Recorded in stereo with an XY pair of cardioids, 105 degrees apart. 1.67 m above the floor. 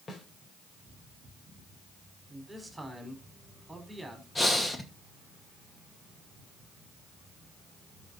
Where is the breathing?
20° left, 2 m.